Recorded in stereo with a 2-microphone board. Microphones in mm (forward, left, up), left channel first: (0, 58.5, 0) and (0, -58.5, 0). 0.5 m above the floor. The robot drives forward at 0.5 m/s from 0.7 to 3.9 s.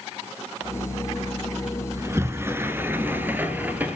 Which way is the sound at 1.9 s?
25° right (ahead or behind).